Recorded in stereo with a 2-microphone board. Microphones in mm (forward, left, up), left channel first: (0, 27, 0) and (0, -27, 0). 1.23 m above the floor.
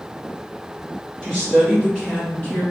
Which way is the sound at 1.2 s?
10° left (ahead or behind).